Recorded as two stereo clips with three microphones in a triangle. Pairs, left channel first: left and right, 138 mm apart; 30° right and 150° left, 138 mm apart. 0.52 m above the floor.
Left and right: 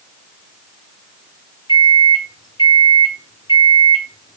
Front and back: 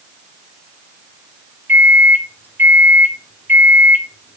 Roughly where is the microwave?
Left.